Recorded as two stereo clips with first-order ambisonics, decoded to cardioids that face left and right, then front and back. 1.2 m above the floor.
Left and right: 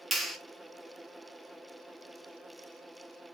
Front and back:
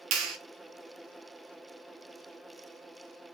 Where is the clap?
Straight behind, 0.5 m.